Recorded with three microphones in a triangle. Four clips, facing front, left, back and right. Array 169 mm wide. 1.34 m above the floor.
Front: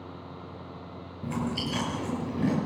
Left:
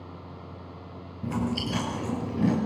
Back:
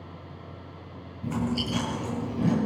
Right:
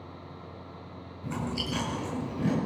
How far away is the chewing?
About 9.5 m.